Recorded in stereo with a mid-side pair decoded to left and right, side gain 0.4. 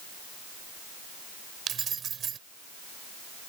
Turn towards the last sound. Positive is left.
turn(degrees=-60)